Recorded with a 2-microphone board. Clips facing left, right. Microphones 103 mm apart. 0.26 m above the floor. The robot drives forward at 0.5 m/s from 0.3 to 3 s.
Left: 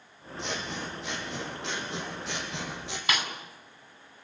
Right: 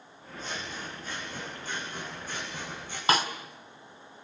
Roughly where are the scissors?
Left.